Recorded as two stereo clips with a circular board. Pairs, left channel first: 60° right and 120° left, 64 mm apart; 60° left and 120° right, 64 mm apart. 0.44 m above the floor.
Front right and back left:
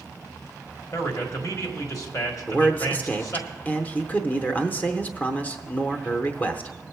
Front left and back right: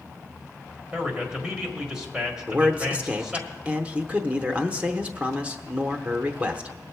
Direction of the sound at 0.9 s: 45° right.